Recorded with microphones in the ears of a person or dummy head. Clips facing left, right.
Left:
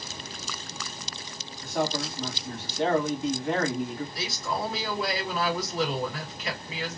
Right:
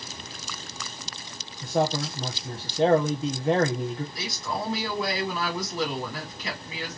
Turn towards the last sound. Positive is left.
turn(degrees=-85)